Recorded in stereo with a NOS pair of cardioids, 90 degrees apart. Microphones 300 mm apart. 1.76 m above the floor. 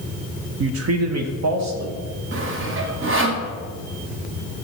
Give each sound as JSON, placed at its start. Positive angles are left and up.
{"t": 0.6, "sound": "a man speaking", "azimuth_deg": -40, "distance_m": 0.5}
{"t": 2.3, "sound": "sawing", "azimuth_deg": -40, "distance_m": 1.2}